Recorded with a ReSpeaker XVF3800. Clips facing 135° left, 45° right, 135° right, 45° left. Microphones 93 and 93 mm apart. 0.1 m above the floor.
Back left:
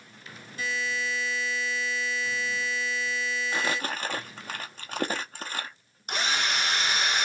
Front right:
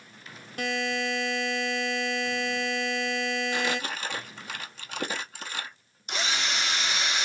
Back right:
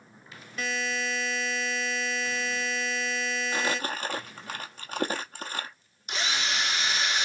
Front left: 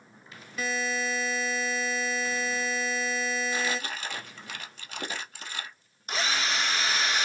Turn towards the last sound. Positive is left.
turn(degrees=95)